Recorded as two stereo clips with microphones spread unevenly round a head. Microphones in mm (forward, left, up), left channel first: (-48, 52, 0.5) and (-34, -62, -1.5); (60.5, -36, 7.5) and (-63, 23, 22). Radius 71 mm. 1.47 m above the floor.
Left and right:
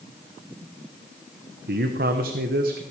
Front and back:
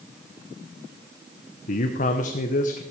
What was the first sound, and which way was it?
A man speaking, 65° right.